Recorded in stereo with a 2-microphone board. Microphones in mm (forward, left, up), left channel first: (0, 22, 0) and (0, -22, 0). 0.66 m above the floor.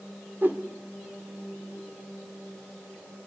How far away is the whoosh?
About 2 m.